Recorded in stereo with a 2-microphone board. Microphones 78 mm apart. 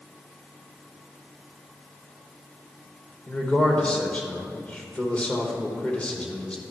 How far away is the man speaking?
About 1.0 m.